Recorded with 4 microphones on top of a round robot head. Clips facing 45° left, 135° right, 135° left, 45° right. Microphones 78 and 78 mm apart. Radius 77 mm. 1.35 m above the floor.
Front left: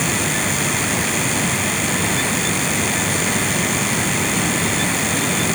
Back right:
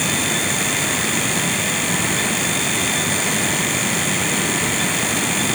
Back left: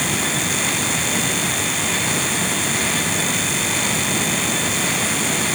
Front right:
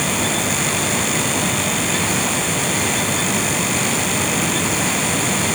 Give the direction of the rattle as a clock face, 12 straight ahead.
I don't hear a rattle.